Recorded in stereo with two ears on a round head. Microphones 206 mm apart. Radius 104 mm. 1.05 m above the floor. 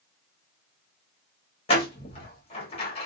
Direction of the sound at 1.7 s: 25° left (ahead or behind).